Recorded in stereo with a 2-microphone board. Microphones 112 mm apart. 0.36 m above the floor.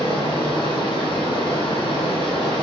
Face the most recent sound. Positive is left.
turn(degrees=50)  # may be behind; listen again after turning